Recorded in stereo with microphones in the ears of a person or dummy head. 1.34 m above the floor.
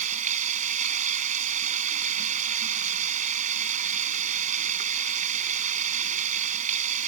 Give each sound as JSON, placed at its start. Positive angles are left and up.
{"t": 0.0, "sound": "running water", "side_deg": -45}